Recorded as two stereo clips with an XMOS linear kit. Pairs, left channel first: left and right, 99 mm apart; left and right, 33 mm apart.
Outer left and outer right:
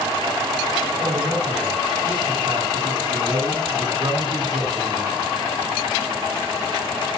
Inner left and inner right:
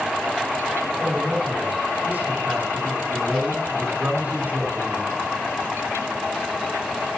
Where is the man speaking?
60° right (ahead or behind), 7 m.